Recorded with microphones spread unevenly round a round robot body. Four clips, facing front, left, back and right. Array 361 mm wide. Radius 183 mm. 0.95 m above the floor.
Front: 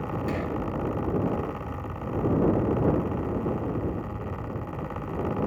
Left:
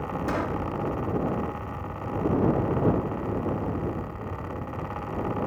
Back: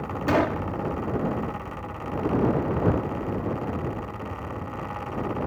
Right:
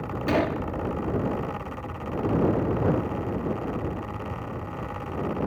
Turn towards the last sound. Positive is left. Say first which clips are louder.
# right 6 dB, back 10 dB
turn(degrees=-155)